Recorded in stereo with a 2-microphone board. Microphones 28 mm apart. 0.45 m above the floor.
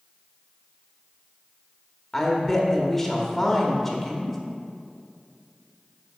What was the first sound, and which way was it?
A woman speaking, 10° left (ahead or behind).